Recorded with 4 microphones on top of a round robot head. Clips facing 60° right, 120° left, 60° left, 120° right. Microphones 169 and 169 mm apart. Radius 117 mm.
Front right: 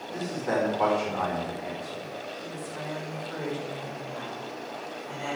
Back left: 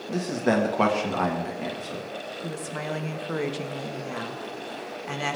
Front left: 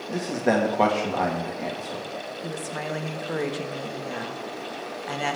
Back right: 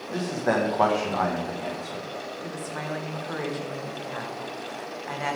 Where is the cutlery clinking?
I don't hear cutlery clinking.